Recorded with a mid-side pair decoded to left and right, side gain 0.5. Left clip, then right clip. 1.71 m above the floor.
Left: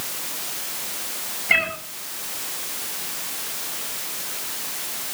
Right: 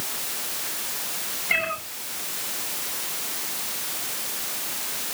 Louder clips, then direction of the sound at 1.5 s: Left 4 dB; 35° left.